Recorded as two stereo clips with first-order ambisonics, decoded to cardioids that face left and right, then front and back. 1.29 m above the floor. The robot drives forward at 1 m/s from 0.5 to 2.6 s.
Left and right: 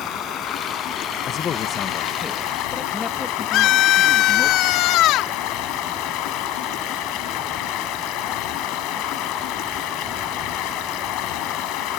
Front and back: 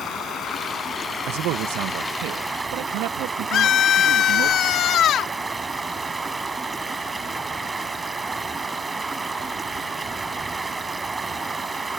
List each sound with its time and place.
0.0 s running water: 50° left; by 12.0 s 100° left
1.3 s a man speaking: 145° left; by 4.5 s 165° left
3.5 s a scream: 50° left